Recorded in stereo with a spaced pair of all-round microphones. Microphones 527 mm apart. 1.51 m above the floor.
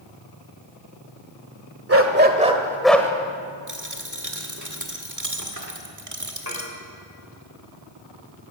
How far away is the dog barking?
About 1.4 m.